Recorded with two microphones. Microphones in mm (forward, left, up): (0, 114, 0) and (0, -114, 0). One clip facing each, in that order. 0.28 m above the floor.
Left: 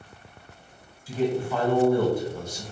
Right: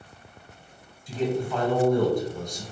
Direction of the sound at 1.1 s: 5° left (ahead or behind).